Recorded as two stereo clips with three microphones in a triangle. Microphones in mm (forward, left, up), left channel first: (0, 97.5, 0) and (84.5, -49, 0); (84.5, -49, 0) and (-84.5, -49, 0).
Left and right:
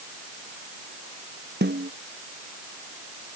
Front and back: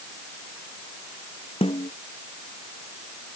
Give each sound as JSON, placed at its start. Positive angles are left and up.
{"t": 1.6, "sound": "a snare drum", "azimuth_deg": -55}